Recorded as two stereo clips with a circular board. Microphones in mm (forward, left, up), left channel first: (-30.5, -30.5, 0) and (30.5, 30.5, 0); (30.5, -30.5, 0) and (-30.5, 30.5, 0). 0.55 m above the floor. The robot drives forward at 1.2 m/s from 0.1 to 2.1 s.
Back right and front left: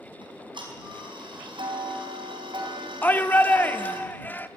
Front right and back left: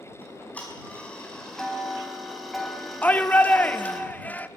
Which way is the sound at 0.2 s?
25° left.